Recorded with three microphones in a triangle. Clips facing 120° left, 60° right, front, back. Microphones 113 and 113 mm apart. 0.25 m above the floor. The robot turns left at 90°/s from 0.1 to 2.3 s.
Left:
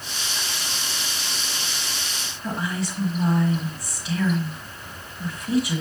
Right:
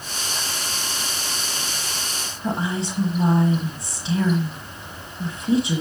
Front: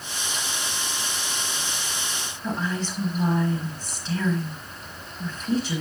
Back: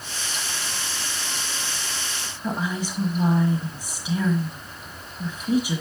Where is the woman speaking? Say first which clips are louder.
Right 3 dB, back 1 dB; 110° right, 1.5 m.